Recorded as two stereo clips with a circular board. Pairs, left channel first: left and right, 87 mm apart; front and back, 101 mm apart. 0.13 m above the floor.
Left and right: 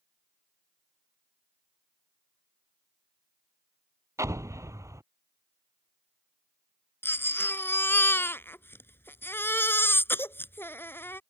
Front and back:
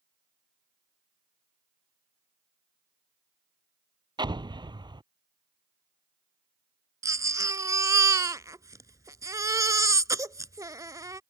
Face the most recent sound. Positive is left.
turn(degrees=140)